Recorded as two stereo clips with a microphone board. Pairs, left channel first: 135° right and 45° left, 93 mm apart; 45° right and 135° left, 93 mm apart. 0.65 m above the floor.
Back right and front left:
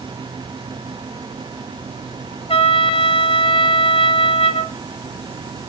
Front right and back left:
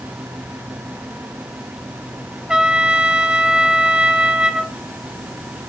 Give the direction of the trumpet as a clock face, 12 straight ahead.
5 o'clock.